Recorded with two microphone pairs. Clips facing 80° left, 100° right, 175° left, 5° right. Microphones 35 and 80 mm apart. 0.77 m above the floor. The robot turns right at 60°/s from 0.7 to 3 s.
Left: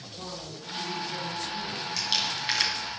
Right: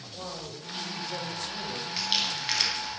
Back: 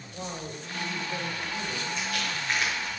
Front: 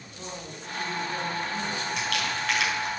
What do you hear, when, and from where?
0.1 s a woman speaking: 155° right, 3 m; by 1.9 s 90° right, 3 m
2.0 s crumpling: 35° right, 3.5 m; by 2.9 s 25° left, 3.5 m